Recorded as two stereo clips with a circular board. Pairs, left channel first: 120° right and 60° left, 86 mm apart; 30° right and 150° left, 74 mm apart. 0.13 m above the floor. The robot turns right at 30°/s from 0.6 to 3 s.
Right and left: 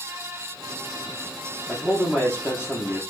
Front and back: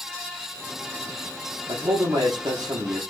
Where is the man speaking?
150° left, 4.5 m; by 3.0 s 175° right, 4.5 m.